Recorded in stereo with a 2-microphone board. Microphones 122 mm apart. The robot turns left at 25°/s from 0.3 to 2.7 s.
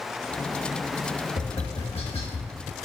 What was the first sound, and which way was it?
Tapping, 55° left (ahead or behind).